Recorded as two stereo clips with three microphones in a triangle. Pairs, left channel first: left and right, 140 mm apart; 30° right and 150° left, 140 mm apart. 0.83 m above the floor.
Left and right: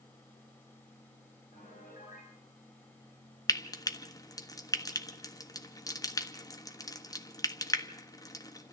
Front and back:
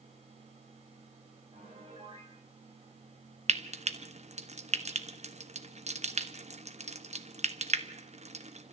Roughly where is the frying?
Behind left.